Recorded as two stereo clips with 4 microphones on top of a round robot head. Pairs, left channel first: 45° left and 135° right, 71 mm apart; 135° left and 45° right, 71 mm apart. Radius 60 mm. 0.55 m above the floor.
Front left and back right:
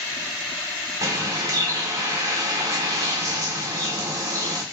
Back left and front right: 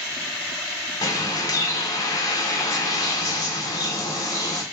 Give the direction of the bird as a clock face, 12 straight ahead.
6 o'clock.